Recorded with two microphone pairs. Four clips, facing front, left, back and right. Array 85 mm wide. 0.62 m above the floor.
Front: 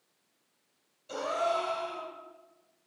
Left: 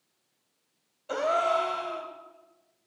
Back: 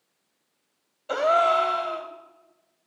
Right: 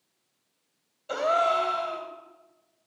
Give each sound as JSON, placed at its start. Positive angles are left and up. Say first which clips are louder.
{"t": 1.1, "sound": "a gasp", "louder": "right 2 dB, back 10 dB", "azimuth_deg": 175, "distance_m": 1.2}